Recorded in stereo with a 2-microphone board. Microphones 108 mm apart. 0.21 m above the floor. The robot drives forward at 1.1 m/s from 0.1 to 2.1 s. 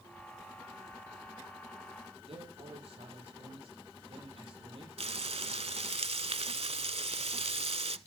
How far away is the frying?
About 0.6 m.